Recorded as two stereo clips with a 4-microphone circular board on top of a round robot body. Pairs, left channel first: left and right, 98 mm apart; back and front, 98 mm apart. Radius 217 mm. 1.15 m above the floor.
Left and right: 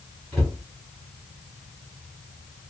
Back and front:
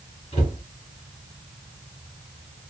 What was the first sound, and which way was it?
A cupboard door, 175° left.